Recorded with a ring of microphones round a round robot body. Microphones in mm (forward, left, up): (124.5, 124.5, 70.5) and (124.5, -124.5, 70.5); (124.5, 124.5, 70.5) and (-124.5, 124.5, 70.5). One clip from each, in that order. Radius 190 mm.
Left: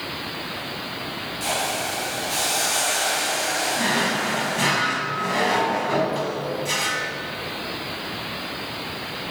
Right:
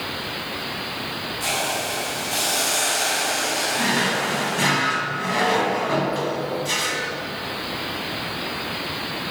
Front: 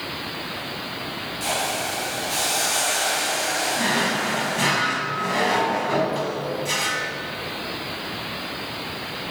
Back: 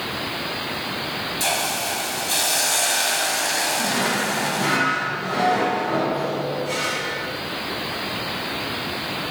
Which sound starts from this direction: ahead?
A drawer, at 3.8 s.